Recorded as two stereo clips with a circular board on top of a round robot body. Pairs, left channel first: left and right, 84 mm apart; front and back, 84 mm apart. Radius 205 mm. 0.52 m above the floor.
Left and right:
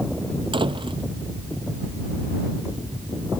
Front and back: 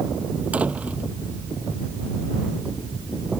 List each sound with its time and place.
0.5 s a door slam: 105° right